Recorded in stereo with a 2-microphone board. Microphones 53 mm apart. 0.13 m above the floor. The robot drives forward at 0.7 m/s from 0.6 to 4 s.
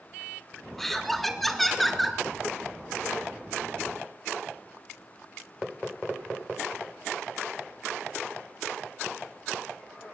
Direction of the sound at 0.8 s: 5° left (ahead or behind).